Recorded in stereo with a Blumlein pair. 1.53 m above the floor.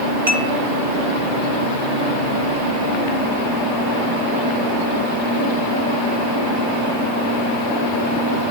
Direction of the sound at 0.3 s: 60° right.